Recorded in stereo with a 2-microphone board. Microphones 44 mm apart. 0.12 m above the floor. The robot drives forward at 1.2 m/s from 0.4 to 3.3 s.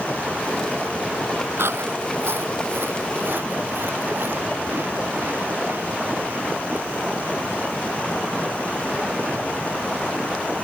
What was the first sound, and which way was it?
Chewing, 70° right (ahead or behind).